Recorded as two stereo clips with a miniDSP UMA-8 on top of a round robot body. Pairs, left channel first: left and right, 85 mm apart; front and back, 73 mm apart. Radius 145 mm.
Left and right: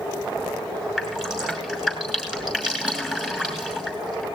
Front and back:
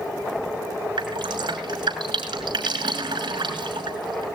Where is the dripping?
175° right, 6 m.